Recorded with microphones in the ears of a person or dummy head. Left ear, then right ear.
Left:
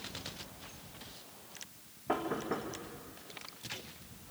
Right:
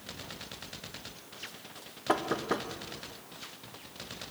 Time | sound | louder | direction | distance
2.1 | knocking | right 5 dB | 80° right | 1.5 m